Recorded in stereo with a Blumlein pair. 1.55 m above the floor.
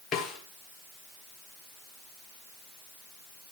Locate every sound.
0.1 s a snare drum: 25° left, 2.5 m